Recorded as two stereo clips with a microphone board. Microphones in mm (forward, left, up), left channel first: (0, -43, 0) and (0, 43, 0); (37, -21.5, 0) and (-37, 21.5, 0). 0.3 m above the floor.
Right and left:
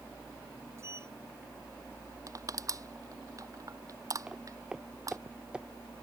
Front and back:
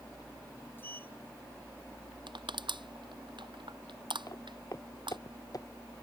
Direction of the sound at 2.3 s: 135° left.